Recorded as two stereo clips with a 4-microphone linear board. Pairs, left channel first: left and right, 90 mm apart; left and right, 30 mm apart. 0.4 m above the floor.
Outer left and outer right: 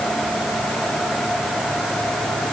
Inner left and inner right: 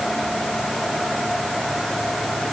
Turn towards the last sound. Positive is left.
No sound to turn to.